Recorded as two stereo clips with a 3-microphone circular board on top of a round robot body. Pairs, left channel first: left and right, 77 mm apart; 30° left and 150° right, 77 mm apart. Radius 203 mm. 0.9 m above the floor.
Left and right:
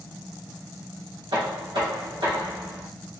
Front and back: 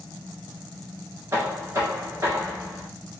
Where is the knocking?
90° right, 1.2 m.